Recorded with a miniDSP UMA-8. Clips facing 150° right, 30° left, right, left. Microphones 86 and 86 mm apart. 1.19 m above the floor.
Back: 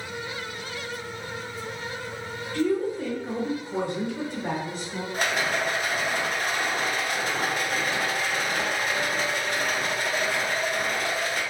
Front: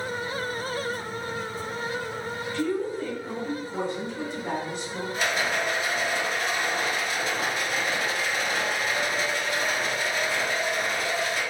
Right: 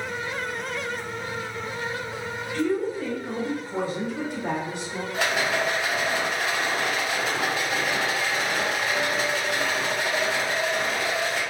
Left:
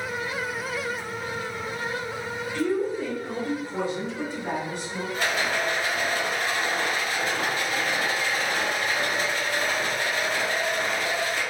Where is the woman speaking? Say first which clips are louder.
Back 4 dB, even; 170° left, 1.1 m; by 5.0 s 95° right, 1.0 m.